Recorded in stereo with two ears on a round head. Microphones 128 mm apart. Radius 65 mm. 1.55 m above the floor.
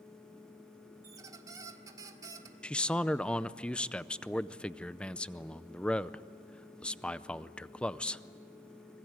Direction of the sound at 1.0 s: 25° right (ahead or behind).